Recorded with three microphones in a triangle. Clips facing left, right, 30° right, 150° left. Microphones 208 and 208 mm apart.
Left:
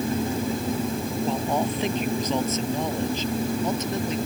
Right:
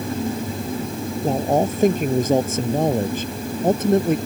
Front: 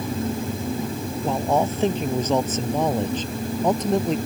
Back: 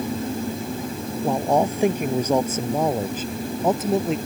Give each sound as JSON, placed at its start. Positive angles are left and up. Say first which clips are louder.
{"t": 1.2, "sound": "a man speaking", "louder": "right 7 dB, back 2 dB", "azimuth_deg": -135}